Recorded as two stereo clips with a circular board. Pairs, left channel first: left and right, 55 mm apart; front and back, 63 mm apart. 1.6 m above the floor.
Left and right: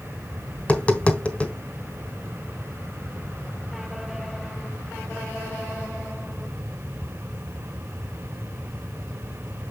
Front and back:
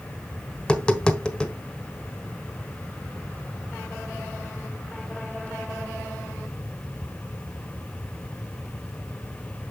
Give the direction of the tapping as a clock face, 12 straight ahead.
10 o'clock.